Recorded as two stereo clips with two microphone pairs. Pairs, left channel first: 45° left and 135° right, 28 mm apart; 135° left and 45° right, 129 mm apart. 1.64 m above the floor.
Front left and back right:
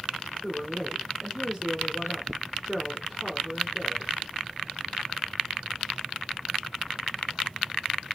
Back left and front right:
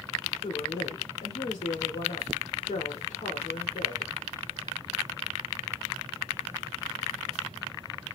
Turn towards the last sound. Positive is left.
turn(degrees=130)